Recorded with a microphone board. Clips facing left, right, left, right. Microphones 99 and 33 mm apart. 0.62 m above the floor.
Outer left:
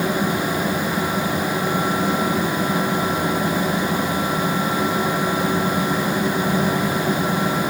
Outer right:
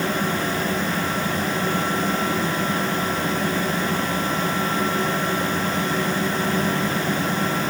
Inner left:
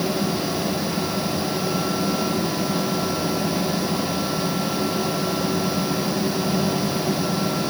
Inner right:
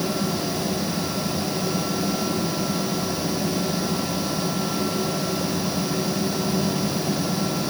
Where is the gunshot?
No gunshot in this recording.